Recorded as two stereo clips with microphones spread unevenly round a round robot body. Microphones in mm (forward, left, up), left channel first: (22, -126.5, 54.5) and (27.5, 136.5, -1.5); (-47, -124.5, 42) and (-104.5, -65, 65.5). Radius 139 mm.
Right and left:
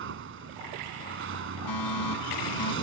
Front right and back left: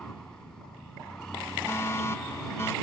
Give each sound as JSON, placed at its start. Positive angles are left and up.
{"t": 0.0, "sound": "a vehicle", "azimuth_deg": 45}
{"t": 1.7, "sound": "a fire alarm", "azimuth_deg": -105}